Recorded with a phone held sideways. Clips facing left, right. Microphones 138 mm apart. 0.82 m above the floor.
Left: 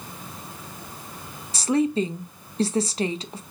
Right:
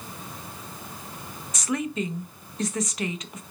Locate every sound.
1.5 s a woman speaking: 30° left (ahead or behind), 0.6 m